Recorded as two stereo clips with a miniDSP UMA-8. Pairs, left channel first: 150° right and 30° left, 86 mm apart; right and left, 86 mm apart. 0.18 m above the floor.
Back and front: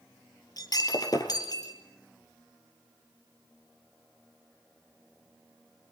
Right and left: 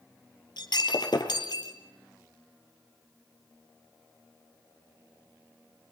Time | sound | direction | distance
0.6 | breaking glass | 115° right | 3 m